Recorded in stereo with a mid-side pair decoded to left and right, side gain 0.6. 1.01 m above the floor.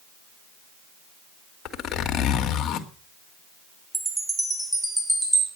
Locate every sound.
1.6 s a zipper: 50° left, 1.9 m
3.9 s a chime: 10° right, 6 m